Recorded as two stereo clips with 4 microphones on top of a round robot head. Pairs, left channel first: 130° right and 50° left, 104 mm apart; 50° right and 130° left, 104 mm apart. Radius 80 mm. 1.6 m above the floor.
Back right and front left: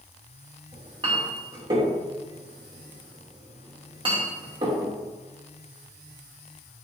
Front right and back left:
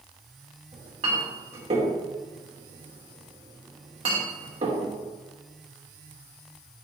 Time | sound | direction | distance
0.7 | a clink | 95° left | 3 m